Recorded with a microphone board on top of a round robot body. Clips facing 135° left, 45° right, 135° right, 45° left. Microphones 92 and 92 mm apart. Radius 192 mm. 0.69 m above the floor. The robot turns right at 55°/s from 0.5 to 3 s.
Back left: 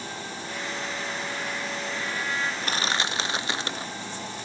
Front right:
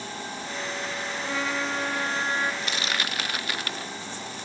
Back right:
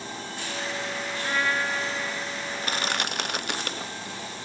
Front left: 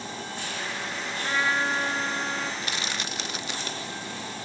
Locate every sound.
1.2 s a trumpet: 45° right; by 2.5 s 25° left
2.6 s crushing: straight behind; by 3.9 s 160° right